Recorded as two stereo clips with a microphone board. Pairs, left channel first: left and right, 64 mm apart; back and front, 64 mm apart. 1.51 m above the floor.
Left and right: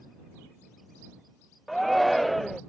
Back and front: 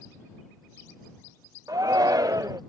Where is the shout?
Straight ahead.